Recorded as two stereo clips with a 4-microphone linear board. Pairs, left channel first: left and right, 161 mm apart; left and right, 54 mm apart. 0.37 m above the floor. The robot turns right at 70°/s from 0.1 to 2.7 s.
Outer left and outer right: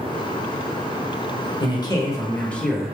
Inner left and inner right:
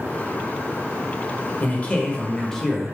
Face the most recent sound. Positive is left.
turn(degrees=0)  # may be behind; listen again after turning